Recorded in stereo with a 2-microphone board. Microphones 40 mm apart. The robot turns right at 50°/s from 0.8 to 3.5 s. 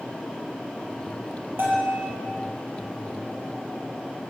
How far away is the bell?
About 6.5 m.